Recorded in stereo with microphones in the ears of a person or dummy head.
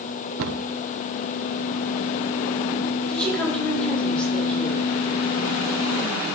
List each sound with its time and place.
0.4 s a cupboard door: 70° right (ahead or behind), 0.8 m
3.1 s a woman speaking: 5° left (ahead or behind), 4.5 m